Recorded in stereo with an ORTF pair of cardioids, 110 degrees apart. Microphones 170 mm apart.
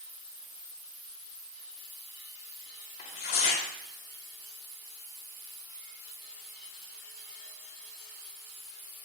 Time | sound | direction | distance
3.0 | tearing paper | 65° left | 2.5 m